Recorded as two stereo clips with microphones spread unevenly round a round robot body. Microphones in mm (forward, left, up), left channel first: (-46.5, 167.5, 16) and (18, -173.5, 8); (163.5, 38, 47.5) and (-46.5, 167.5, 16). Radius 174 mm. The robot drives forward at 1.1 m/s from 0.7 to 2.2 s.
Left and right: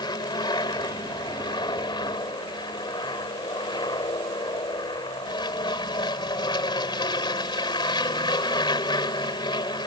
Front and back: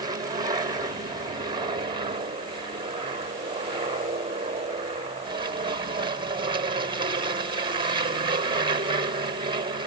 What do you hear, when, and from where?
0.0 s an aircraft: 160° left; by 9.9 s 165° left